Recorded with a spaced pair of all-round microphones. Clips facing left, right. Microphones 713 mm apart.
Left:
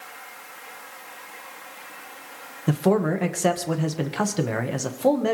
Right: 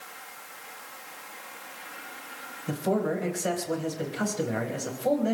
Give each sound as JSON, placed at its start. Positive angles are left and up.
{"t": 2.7, "sound": "a man speaking", "side_deg": 85, "distance_m": 1.9}